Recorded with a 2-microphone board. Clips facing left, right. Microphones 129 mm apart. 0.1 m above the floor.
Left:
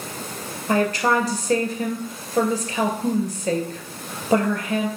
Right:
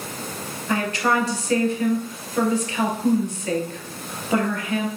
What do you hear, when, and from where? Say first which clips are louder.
0.7 s a woman speaking: left 2 dB; 40° left (ahead or behind), 1.6 m